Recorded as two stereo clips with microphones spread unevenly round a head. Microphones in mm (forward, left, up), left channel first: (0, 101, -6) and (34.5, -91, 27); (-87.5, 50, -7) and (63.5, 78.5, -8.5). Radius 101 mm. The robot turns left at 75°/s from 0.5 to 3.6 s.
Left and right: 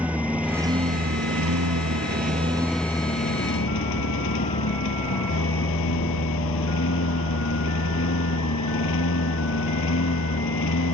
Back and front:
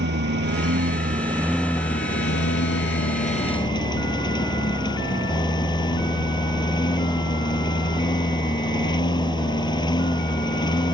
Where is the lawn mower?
Straight ahead; by 10.9 s 130° left.